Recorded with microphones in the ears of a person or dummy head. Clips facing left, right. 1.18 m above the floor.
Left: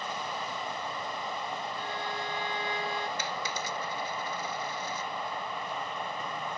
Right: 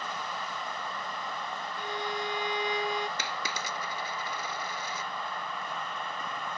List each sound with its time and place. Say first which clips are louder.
0.0 s an insect: left 1 dB; 20° left (ahead or behind)
1.8 s a violin: right 1 dB; 20° right (ahead or behind)
3.2 s a dropped coin: left 1 dB; 65° right (ahead or behind)